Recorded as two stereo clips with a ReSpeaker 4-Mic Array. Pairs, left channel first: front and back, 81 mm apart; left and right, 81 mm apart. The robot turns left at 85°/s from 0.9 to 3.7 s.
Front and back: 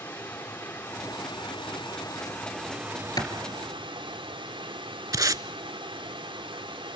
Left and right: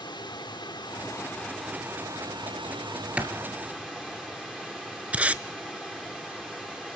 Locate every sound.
0.0 s running water: 60° left, 4 m; by 7.0 s straight behind, 4 m
3.2 s a clap: 20° right, 2.5 m; by 3.3 s 30° right, 2.5 m
5.1 s tape being pulled: 160° right, 0.5 m